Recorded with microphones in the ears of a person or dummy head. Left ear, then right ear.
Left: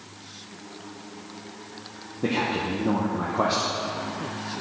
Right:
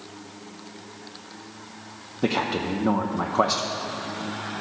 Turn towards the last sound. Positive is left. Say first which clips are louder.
# right 1 dB
turn(degrees=-35)  # may be behind; listen again after turning